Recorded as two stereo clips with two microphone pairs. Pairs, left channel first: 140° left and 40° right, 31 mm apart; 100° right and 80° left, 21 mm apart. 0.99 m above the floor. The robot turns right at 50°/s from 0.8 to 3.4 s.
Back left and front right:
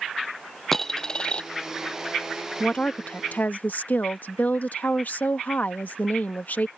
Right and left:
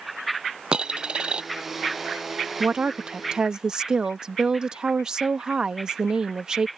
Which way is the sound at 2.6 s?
85° left.